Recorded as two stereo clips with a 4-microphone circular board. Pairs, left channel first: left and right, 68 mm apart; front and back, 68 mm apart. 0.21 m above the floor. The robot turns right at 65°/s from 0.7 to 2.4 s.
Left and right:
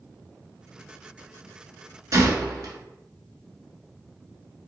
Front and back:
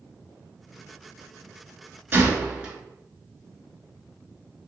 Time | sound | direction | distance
2.1 | a gunshot | 125° right | 0.7 m